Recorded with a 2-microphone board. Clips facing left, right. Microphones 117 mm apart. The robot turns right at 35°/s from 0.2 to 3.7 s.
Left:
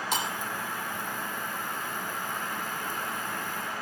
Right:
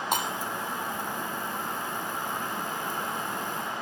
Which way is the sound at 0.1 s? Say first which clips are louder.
Right 2 dB; 55° right (ahead or behind).